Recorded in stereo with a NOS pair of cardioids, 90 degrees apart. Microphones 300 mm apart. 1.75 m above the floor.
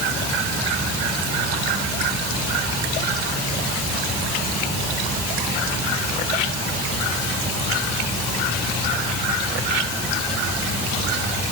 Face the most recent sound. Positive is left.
No sound to turn to.